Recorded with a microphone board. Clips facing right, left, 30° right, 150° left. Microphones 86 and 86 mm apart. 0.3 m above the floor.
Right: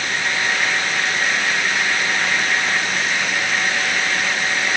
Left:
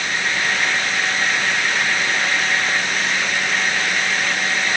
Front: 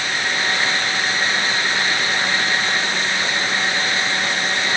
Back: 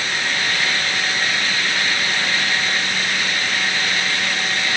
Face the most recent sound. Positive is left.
No sound to turn to.